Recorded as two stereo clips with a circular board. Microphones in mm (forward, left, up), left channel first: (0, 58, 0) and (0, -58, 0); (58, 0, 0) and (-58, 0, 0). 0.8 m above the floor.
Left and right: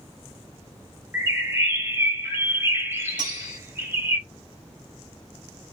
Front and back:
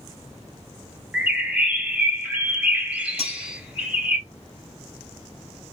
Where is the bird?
115° right, 1.0 m.